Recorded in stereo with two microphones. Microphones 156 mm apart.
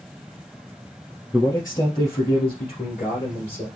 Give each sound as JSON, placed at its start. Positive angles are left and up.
{"t": 1.3, "sound": "a man speaking", "side_deg": 20, "distance_m": 2.5}